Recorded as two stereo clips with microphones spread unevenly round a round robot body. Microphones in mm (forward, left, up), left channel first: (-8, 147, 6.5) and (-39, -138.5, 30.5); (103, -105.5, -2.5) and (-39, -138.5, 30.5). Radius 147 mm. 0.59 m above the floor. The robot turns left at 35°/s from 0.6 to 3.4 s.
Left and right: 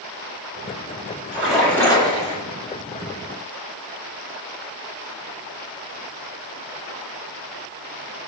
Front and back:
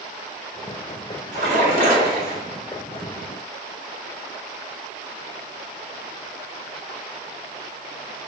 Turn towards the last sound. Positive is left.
turn(degrees=105)